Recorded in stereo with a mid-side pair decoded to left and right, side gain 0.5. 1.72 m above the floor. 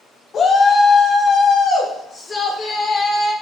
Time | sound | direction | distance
0.3 | a shout | 40° left | 1.1 m